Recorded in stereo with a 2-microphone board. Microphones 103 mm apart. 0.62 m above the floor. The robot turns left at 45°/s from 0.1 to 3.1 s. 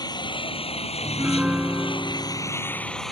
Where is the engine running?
140° left; by 3.1 s 5° left.